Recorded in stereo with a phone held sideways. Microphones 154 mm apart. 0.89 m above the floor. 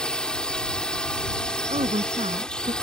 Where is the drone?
5° left (ahead or behind).